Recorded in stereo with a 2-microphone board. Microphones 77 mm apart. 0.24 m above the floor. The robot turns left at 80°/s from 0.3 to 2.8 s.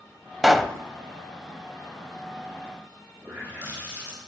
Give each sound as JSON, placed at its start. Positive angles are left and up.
{"t": 0.4, "sound": "a pop", "side_deg": 0, "distance_m": 0.6}
{"t": 3.2, "sound": "a running tap", "side_deg": -25, "distance_m": 7.5}